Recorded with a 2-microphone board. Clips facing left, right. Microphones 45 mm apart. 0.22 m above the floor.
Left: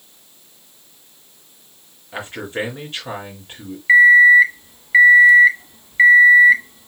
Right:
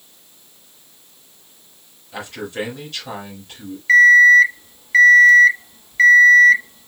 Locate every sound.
2.1 s a man speaking: 25° left (ahead or behind), 3.5 m
3.9 s an alarm clock: 15° left (ahead or behind), 0.7 m